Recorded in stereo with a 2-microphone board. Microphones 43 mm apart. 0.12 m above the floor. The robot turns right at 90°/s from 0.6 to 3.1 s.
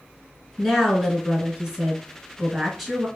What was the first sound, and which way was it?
A woman speaking, 10° left (ahead or behind).